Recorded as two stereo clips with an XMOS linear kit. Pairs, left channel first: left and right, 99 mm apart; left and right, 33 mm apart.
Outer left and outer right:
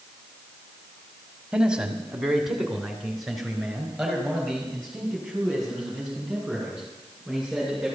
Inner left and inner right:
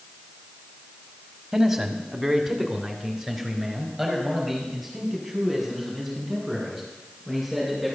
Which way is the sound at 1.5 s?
10° right (ahead or behind).